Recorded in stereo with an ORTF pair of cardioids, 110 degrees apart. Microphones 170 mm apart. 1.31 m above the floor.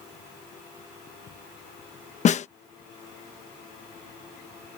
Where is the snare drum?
40° left.